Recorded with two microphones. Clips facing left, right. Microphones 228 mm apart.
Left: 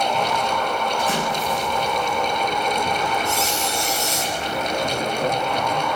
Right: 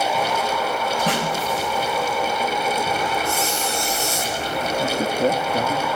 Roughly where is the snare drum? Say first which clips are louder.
Right 1 dB; right.